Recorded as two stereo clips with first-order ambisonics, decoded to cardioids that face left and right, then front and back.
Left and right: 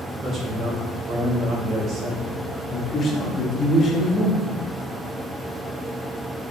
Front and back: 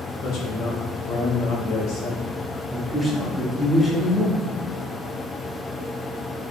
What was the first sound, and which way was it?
A man speaking, 30° right.